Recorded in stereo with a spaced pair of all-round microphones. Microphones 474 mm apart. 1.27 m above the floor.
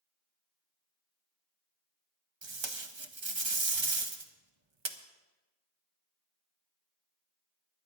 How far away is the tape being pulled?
About 1.0 m.